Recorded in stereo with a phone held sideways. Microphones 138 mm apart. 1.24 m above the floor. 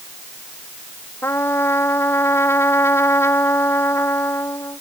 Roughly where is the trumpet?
Centre.